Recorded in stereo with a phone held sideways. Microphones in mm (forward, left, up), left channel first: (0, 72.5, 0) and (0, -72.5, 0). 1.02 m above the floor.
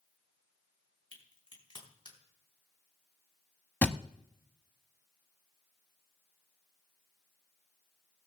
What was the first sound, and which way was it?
A crack, 40° left (ahead or behind).